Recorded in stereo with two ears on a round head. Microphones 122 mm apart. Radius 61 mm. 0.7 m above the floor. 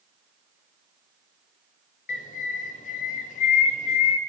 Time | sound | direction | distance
2.1 | a bird | 55° left (ahead or behind) | 1.1 m